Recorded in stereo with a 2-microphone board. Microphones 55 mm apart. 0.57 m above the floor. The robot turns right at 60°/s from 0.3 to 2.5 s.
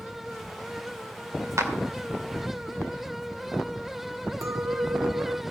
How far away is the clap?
About 1.8 m.